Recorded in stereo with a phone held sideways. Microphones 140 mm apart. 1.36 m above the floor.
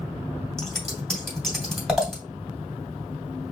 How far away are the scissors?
About 1.9 m.